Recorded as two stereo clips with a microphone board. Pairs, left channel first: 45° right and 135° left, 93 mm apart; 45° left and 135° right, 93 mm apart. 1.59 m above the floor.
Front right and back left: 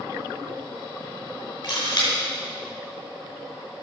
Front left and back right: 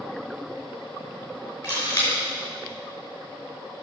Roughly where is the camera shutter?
Ahead.